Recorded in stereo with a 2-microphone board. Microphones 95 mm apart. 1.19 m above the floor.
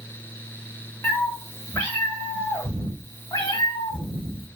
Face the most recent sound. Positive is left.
turn(degrees=65)  # may be behind; listen again after turning